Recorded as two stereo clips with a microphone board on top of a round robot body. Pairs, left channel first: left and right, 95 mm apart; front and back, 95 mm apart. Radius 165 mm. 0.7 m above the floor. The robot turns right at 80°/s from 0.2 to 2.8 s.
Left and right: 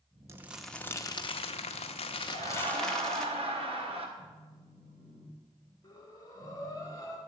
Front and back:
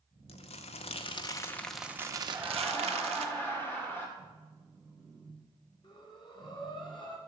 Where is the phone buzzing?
100° right, 1.5 m.